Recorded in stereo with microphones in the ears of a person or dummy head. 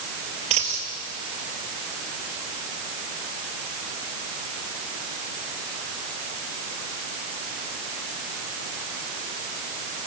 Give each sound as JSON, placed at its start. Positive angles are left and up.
{"t": 0.5, "sound": "a dropped coin", "side_deg": -40, "distance_m": 3.0}